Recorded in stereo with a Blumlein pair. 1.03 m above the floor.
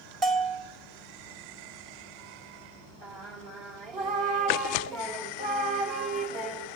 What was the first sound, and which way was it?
A bell, 25° right.